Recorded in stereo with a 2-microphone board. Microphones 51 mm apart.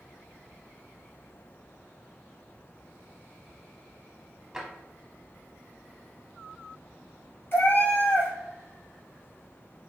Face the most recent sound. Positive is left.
turn(degrees=45)  # may be behind; listen again after turning